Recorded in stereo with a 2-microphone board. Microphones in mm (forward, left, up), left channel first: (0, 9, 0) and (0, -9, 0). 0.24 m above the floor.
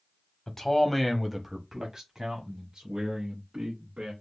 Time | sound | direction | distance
0.5 | a man speaking | 25° left (ahead or behind) | 1.1 m